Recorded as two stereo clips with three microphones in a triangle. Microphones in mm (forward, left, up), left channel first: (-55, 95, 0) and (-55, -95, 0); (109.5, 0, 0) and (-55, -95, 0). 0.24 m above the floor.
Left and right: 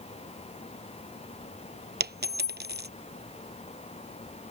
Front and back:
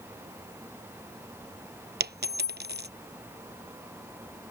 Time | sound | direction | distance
2.0 | a dropped coin | 120° right | ?